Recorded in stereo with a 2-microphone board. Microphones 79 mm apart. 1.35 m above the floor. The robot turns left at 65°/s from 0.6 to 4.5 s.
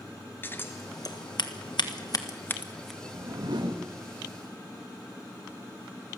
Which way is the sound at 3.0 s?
40° right.